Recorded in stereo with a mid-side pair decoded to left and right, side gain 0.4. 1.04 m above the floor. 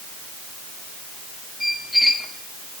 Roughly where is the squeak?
Ahead.